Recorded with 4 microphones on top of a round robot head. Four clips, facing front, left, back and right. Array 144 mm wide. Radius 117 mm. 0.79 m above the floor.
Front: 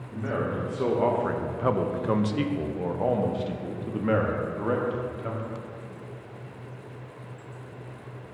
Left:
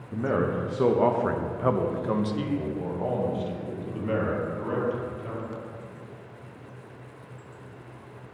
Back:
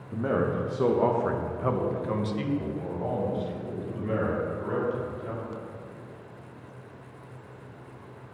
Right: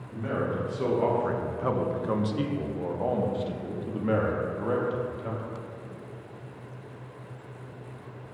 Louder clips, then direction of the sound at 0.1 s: Left 4 dB, back 3 dB; 125° left.